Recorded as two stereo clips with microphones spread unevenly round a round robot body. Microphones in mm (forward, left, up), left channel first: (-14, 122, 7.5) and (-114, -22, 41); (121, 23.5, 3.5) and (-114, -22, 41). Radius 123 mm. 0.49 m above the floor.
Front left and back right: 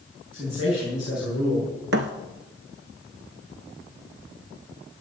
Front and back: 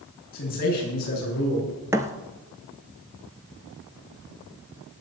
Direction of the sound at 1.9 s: 95° right.